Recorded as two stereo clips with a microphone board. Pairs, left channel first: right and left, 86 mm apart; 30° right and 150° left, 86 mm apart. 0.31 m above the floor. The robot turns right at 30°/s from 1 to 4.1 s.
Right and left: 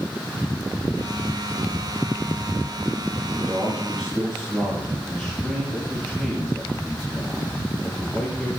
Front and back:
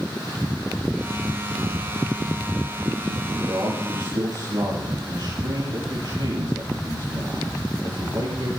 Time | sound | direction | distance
3.3 | a man speaking | 160° left | 7.5 m